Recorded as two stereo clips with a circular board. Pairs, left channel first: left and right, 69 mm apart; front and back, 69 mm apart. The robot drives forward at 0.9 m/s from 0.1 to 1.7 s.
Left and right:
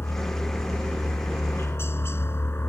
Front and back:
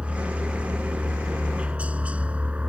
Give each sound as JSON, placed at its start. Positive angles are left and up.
{"t": 0.0, "sound": "a helicopter", "azimuth_deg": 115}